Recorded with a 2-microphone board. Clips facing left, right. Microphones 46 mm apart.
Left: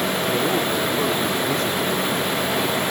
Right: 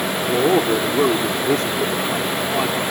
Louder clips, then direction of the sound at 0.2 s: Right 8 dB; 40° right (ahead or behind).